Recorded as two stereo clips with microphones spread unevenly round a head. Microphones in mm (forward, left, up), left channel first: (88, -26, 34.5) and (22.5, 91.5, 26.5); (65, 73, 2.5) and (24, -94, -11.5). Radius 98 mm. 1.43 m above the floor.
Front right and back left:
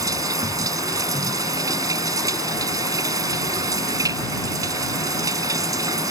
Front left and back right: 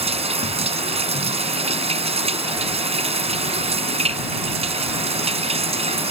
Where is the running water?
165° right.